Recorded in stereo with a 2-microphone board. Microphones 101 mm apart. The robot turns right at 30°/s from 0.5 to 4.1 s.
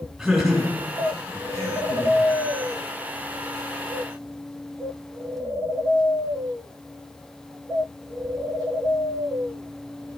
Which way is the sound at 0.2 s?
Centre (ahead or behind).